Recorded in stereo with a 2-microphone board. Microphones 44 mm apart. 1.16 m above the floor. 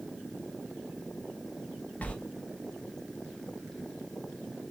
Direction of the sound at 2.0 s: 35° left (ahead or behind).